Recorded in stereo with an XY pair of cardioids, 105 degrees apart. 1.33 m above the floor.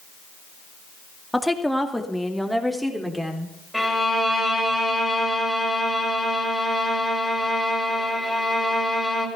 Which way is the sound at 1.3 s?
Straight ahead.